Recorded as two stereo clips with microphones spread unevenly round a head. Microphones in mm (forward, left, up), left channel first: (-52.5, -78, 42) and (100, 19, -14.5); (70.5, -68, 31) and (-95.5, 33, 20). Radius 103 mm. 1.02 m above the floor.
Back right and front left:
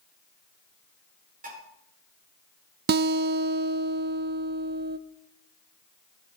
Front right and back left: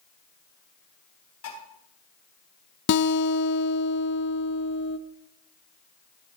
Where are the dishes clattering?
15° right, 8 m.